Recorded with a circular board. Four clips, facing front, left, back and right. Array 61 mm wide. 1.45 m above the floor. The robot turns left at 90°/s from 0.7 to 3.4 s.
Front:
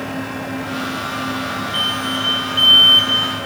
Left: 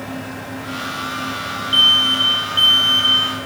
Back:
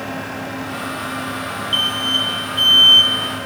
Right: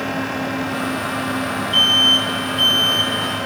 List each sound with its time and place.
1.7 s an alarm: 145° left, 3.5 m; by 3.1 s 20° left, 3.5 m